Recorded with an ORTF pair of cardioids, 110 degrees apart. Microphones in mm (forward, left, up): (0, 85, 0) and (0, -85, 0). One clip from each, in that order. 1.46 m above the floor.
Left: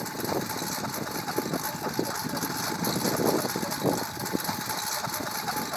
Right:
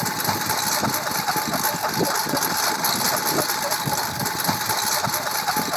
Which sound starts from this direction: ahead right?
A lawn mower, at 0.0 s.